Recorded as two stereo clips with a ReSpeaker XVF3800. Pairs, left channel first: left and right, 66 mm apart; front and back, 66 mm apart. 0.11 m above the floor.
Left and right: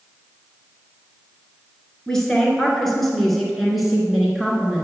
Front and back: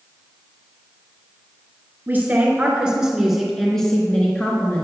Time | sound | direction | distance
2.1 | a woman speaking | 165° left | 1.5 m